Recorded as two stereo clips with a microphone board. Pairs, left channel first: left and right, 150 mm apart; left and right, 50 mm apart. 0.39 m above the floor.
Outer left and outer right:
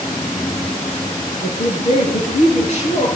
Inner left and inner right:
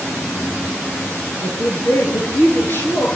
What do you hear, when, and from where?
1.4 s a woman speaking: 50° left (ahead or behind), 8 m